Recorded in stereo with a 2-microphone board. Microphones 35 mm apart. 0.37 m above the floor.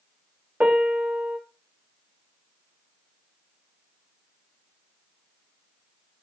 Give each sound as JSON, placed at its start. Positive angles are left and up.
{"t": 0.6, "sound": "a piano", "side_deg": -35, "distance_m": 1.4}